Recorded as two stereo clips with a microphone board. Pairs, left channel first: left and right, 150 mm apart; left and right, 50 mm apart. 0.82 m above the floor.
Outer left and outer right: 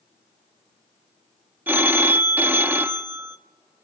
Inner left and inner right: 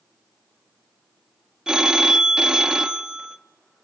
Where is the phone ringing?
15° right (ahead or behind), 0.8 m.